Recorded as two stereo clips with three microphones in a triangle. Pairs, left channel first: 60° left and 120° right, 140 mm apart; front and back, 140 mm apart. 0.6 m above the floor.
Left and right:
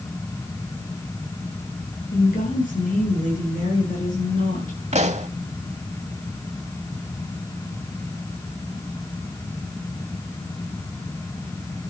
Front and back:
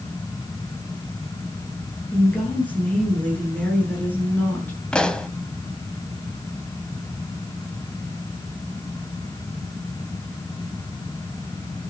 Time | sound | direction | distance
2.1 | a woman speaking | 80° left | 8.5 m
4.9 | a pop | 85° right | 1.0 m